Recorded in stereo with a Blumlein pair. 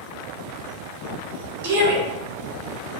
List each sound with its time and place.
1.6 s a shout: 55° right, 1.6 m